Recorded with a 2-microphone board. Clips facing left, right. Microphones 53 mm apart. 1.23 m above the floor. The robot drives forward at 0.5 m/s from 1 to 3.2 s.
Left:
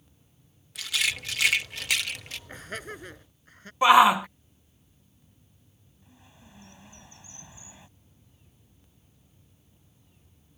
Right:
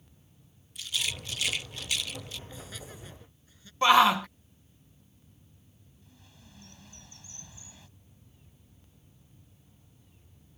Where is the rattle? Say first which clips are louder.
Left 6 dB; 70° left (ahead or behind); by 2.4 s 55° left (ahead or behind).